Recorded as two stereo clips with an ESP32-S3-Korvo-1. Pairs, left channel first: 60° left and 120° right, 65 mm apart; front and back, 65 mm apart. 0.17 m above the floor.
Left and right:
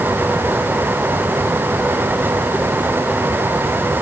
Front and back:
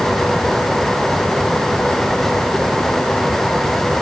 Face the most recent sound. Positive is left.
No sound to turn to.